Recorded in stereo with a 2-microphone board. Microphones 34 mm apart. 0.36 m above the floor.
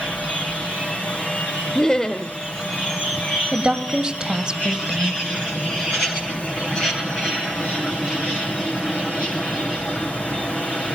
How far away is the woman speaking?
About 1.6 m.